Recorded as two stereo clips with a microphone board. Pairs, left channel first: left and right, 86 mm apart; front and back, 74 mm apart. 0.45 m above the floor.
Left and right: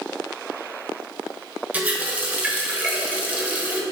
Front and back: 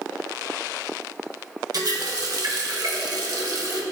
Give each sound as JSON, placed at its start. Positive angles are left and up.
{"t": 1.7, "sound": "a running tap", "azimuth_deg": -160, "distance_m": 1.1}